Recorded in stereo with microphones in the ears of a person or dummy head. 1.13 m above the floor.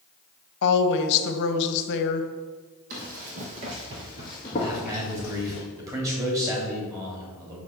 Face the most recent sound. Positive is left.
turn(degrees=-15)  # may be behind; listen again after turning